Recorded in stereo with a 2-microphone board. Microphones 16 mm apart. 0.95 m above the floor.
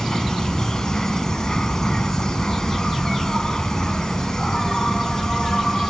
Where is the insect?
35° left (ahead or behind).